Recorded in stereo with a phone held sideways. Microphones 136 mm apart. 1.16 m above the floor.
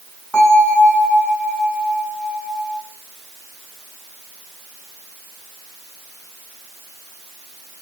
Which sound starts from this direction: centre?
A bell, at 0.3 s.